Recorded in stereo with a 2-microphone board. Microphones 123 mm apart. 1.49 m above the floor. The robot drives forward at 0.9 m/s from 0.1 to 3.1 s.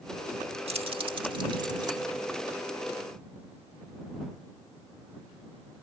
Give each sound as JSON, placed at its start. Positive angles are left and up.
{"t": 0.7, "sound": "keys jangling", "side_deg": -55}